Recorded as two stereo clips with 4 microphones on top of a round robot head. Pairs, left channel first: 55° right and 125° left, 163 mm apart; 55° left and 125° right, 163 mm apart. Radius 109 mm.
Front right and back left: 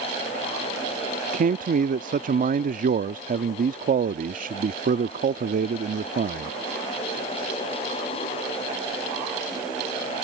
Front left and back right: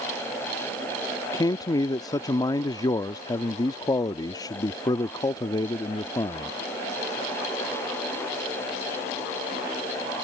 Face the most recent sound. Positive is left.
turn(degrees=115)